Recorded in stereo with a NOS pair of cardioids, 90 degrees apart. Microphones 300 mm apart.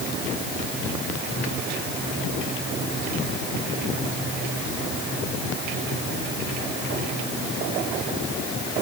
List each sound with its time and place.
Only background noise.